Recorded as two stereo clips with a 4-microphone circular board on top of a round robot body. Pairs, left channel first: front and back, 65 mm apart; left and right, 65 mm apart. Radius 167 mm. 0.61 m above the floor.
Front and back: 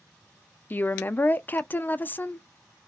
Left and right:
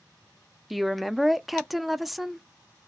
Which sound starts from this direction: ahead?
A woman speaking, at 0.7 s.